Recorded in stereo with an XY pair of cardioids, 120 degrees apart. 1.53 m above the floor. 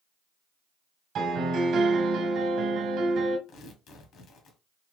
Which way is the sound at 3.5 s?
65° left.